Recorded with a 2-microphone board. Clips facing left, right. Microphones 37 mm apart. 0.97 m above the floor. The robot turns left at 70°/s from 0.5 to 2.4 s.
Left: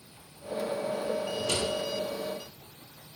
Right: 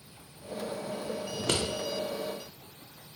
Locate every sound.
1.3 s scissors: 70° right (ahead or behind), 0.7 m; by 1.6 s 65° right (ahead or behind), 0.7 m